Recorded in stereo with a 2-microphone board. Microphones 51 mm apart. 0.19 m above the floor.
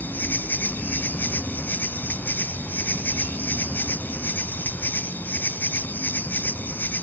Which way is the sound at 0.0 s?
35° left (ahead or behind).